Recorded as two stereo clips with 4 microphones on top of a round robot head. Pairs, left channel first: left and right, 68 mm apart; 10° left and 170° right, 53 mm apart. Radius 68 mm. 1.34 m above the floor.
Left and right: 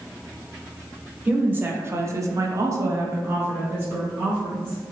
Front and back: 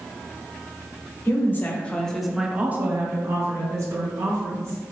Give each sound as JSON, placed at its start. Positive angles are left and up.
{"t": 1.2, "sound": "a woman speaking", "azimuth_deg": -25, "distance_m": 0.8}